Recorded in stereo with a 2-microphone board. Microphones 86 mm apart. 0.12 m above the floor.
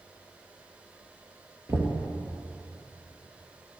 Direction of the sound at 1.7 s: 30° right (ahead or behind).